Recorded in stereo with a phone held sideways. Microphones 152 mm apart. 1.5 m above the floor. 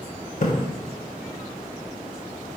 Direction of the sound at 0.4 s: 60° left (ahead or behind).